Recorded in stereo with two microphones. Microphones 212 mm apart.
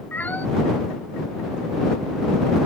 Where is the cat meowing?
10° left (ahead or behind).